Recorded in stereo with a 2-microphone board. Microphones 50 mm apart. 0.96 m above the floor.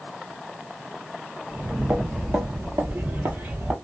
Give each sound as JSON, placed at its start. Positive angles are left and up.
{"t": 1.5, "sound": "footsteps", "side_deg": -45, "distance_m": 1.5}